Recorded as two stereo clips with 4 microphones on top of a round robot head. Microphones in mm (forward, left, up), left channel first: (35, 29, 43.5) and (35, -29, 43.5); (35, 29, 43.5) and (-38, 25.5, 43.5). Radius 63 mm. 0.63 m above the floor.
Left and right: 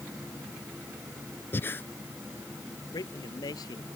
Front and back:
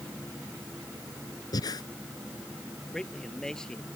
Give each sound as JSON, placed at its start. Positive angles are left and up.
{"t": 1.5, "sound": "breathing", "azimuth_deg": 35}
{"t": 2.9, "sound": "a man speaking", "azimuth_deg": 85}